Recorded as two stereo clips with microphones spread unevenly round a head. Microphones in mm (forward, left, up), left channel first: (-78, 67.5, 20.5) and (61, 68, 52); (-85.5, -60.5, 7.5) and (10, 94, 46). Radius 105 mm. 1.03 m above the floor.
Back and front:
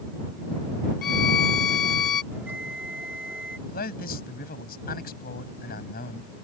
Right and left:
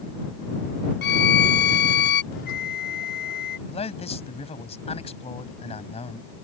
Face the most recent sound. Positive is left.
turn(degrees=180)